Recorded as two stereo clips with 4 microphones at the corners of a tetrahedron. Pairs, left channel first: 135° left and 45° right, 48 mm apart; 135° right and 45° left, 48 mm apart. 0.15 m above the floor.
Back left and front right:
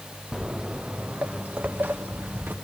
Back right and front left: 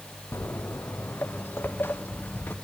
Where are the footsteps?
120° right, 0.7 m; by 2.5 s 85° right, 1.6 m.